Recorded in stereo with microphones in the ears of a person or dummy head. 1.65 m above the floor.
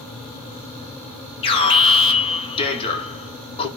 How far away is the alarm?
About 1.7 m.